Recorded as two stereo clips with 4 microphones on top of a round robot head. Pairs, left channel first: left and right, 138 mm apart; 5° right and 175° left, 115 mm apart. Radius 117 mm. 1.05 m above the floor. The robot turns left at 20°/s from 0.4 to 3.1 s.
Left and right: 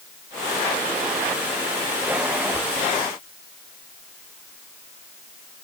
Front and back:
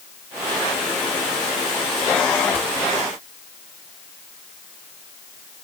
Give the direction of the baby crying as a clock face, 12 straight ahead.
I don't hear a baby crying.